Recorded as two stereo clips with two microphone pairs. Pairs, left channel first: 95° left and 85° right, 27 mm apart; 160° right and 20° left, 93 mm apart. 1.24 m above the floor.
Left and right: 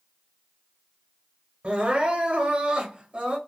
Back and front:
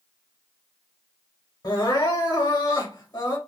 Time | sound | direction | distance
1.6 | crying | 125° right | 1.2 m